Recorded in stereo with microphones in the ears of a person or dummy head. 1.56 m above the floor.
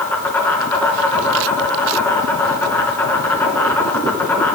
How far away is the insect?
About 3 m.